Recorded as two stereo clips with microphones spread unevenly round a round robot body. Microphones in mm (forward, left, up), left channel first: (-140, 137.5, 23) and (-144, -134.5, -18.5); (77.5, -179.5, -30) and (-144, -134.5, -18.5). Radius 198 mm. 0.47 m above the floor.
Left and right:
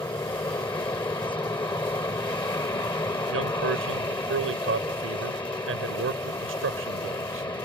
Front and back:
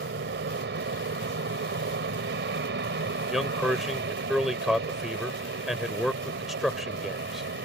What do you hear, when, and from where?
0.0 s an aircraft: 165° left
3.3 s a man speaking: 100° right